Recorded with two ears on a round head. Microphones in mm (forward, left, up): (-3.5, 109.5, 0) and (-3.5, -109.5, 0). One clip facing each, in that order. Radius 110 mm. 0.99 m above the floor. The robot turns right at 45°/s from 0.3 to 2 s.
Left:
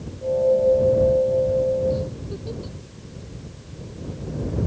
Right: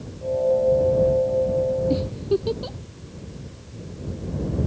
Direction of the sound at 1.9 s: 75° right (ahead or behind).